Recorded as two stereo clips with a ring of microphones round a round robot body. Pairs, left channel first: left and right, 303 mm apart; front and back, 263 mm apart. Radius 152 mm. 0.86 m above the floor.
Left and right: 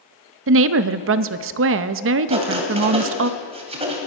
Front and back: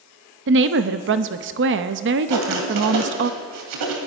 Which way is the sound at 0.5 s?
135° right.